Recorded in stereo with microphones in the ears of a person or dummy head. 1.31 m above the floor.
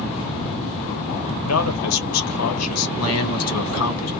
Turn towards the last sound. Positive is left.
turn(degrees=65)  # may be behind; listen again after turning